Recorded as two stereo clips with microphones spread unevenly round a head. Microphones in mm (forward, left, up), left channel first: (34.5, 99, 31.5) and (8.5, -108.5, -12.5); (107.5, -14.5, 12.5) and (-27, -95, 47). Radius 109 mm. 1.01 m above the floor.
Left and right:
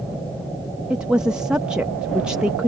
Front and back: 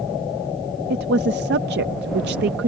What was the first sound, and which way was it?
A woman speaking, straight behind.